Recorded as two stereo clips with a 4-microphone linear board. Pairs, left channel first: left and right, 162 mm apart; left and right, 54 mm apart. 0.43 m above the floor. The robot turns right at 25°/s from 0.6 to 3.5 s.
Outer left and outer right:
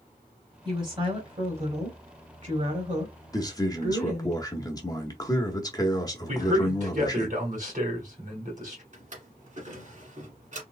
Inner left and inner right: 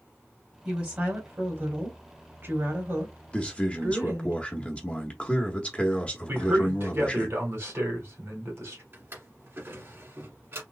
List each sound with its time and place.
0.7 s a woman speaking: 145° right, 2.0 m; by 4.3 s 75° right, 2.0 m
3.3 s a man speaking: 25° left (ahead or behind), 1.0 m
6.3 s a man speaking: 50° right (ahead or behind), 2 m
8.9 s a drawer: 50° right (ahead or behind), 1.5 m